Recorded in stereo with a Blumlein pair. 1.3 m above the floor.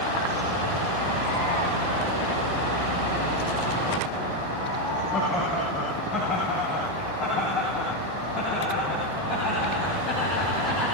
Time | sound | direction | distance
5.1 | laughter | 30° left | 9.5 m